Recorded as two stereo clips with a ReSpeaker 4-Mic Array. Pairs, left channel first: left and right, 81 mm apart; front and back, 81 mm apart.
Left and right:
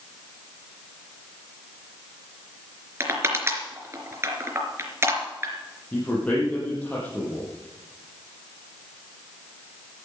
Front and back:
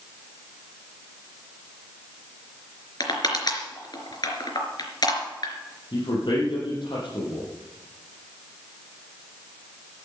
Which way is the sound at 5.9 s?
20° left.